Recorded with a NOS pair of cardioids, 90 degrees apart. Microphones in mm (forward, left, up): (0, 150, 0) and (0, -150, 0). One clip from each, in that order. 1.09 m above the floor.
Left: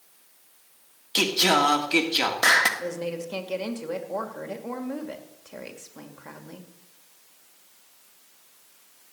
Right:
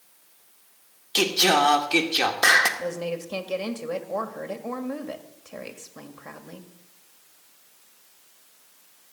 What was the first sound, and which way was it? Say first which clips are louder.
Singing: right 1 dB; straight ahead.